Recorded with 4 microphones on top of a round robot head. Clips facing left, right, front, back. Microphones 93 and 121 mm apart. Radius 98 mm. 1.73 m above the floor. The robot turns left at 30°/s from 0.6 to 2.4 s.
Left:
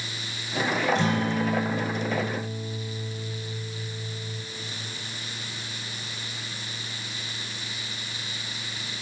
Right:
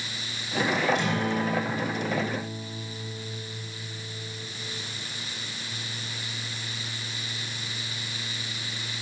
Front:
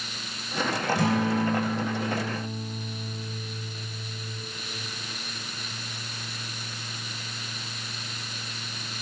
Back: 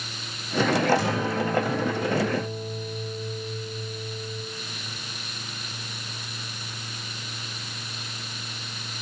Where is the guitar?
35° left, 3.5 m; by 4.4 s 10° right, 3.5 m.